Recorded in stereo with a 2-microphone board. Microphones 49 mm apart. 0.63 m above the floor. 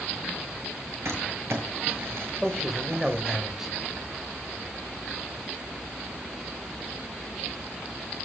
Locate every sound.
1.1 s crumpling: 70° right (ahead or behind), 7.5 m
2.4 s a man speaking: 10° right (ahead or behind), 2.5 m